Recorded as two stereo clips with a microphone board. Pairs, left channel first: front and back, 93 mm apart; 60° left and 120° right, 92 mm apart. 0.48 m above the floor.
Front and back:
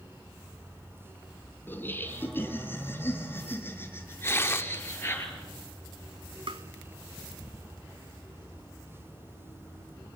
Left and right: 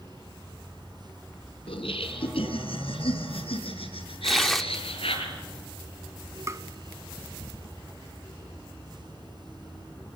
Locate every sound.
1.7 s laughter: 65° left, 4 m
4.2 s tearing paper: 25° right, 0.9 m
6.5 s tapping: 175° right, 1.0 m